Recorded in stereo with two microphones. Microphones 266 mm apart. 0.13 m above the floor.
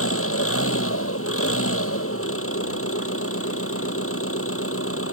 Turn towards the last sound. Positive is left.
turn(degrees=55)  # may be behind; listen again after turning